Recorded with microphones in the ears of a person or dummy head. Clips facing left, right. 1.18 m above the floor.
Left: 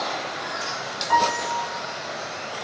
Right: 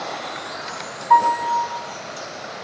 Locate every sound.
1.1 s a piano: 80° left, 4 m